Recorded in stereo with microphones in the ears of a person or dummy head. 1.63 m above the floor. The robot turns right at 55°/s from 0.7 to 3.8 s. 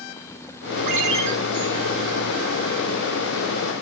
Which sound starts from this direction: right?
A ringtone, at 0.9 s.